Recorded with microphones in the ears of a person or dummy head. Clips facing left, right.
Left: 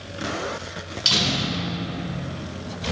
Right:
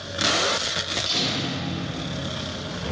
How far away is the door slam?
About 3 m.